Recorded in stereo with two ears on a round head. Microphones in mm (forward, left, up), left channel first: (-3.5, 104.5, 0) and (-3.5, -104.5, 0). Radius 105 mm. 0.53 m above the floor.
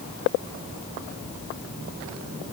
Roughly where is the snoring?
No snoring in this recording.